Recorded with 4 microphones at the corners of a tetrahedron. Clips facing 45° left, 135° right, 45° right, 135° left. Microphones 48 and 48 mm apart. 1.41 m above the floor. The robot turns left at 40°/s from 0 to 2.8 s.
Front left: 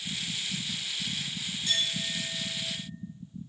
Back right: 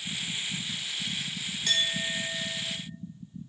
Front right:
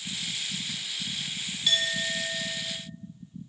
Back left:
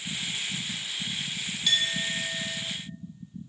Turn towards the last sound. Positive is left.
turn(degrees=-175)